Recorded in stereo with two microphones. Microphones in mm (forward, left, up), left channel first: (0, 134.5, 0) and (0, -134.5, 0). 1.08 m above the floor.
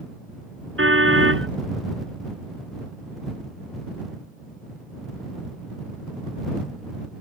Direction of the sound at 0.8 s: 50° right (ahead or behind).